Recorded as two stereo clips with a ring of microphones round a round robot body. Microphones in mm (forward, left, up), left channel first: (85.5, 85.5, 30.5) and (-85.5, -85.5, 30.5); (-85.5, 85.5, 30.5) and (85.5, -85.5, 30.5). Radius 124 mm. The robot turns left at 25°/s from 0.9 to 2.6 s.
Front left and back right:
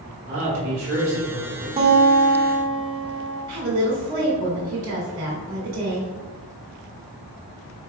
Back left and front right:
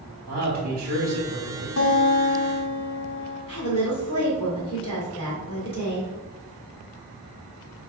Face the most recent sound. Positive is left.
turn(degrees=-165)